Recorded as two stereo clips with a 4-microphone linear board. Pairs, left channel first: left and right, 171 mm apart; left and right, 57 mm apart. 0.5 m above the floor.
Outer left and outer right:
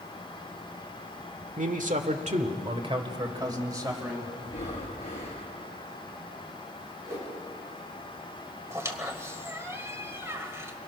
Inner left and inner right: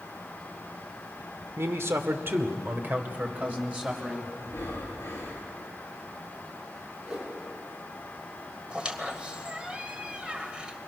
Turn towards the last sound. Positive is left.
turn(degrees=-15)  # may be behind; listen again after turning